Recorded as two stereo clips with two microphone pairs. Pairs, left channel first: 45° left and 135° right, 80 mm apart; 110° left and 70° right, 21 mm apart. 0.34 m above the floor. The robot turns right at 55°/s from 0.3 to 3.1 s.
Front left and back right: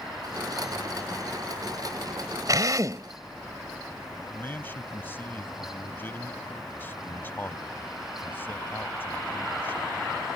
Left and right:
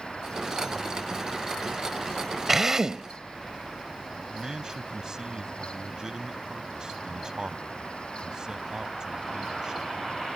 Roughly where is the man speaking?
Ahead.